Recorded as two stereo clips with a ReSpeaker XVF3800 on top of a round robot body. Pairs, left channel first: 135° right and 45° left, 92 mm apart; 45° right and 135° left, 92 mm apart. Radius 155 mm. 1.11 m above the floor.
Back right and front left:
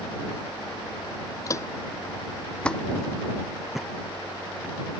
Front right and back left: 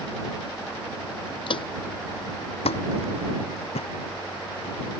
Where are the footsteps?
75° right; by 4.8 s 35° right.